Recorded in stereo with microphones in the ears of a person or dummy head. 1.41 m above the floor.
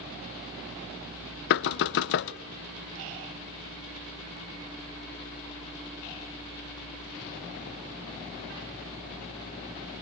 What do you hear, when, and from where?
1.5 s knocking: 65° left (ahead or behind), 0.6 m